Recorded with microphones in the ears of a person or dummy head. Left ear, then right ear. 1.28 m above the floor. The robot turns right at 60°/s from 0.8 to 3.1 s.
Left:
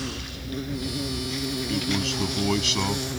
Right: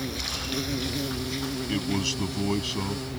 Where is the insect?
35° right; by 3.2 s 100° left.